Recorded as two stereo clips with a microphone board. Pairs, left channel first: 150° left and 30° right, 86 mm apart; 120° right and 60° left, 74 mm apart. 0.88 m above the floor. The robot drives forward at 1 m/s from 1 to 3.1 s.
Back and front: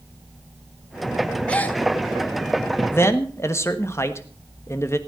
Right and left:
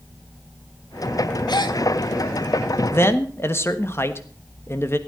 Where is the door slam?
I don't hear a door slam.